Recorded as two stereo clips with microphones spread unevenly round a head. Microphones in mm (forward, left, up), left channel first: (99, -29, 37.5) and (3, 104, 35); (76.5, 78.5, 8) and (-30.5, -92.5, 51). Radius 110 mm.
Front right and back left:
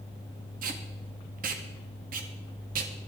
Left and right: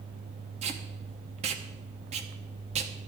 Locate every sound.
0.6 s tape being pulled: 175° left, 1.0 m